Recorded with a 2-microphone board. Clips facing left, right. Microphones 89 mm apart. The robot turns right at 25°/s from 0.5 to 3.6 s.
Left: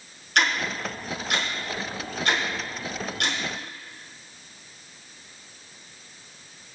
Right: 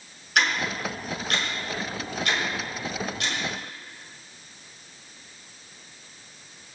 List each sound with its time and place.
0.3 s ticking: 5° right (ahead or behind), 5.5 m; by 3.4 s 65° left (ahead or behind), 5.5 m